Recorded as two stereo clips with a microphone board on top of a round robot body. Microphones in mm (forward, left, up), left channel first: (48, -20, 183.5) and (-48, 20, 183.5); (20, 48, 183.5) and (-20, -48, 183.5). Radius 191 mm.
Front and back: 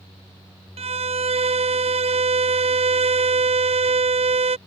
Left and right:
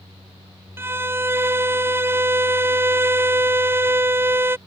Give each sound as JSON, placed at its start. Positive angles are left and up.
{"t": 0.8, "sound": "a violin", "azimuth_deg": 180}